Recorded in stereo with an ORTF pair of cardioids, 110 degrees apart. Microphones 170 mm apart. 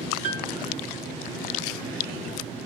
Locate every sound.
0.2 s a piano: 50° right, 0.6 m